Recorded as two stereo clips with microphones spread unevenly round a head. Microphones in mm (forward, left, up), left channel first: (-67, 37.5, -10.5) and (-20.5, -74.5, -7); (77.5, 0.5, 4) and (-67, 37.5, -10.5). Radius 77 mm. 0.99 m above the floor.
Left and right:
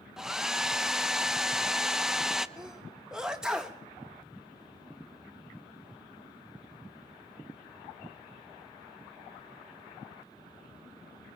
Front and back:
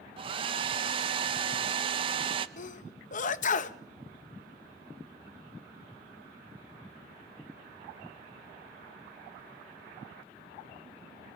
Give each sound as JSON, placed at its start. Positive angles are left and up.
{"t": 0.2, "sound": "a hair dryer", "azimuth_deg": -155, "distance_m": 0.7}
{"t": 2.6, "sound": "a sneeze", "azimuth_deg": 20, "distance_m": 1.0}